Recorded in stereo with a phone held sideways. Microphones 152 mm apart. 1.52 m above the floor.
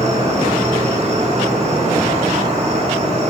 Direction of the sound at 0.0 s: 45° right (ahead or behind).